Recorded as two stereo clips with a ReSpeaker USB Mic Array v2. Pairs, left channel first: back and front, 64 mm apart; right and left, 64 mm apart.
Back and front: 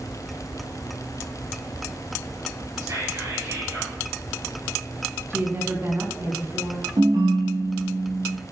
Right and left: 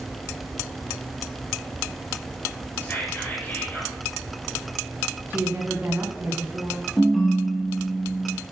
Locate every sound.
2.8 s whispering: 30° right, 5.5 m
5.3 s a woman speaking: 40° left, 2.5 m
7.0 s a ringtone: 5° right, 3 m